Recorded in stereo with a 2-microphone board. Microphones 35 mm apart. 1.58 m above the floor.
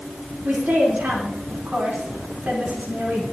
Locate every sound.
0.4 s a woman speaking: 55° right (ahead or behind), 4 m